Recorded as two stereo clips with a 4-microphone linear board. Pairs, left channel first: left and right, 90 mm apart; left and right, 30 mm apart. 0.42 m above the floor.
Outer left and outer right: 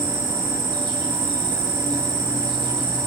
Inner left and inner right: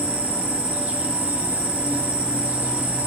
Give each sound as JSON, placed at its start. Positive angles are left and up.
{"t": 0.0, "sound": "an insect", "side_deg": -65, "distance_m": 2.0}